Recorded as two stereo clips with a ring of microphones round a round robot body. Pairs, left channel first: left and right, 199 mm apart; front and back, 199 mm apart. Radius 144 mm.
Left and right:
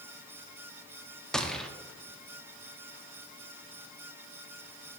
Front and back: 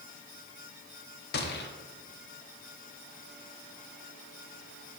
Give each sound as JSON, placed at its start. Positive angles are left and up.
{"t": 1.3, "sound": "a gunshot", "azimuth_deg": 5, "distance_m": 0.8}